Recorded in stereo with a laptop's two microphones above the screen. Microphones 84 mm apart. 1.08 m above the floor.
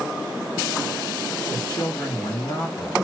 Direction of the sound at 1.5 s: 50° left (ahead or behind).